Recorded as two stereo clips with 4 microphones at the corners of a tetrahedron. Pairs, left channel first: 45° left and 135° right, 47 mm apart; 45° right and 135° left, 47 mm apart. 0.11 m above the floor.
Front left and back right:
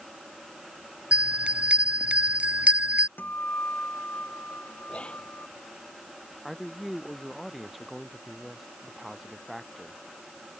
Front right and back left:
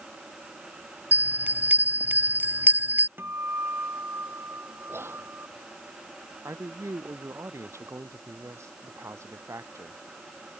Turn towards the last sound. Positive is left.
turn(degrees=140)